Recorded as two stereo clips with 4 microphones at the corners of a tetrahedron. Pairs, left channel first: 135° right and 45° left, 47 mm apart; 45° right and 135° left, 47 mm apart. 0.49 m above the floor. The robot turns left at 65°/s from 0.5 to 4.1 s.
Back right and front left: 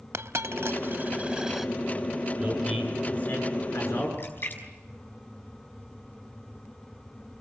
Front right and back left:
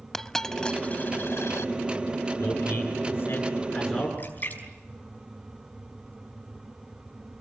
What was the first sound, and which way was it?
A dropped coin, 35° left.